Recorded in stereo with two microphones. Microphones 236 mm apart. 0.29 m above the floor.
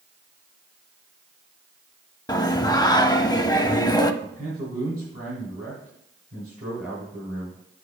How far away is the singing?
About 0.6 m.